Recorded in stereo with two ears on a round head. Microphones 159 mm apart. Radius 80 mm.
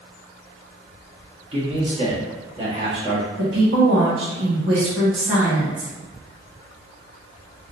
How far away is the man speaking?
About 1.5 m.